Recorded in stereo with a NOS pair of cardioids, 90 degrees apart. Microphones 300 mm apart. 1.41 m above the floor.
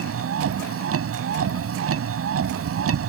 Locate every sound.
0.0 s a vehicle: 50° right